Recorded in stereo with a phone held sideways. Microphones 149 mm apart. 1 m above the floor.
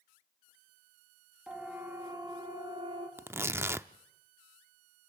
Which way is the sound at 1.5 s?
5° right (ahead or behind).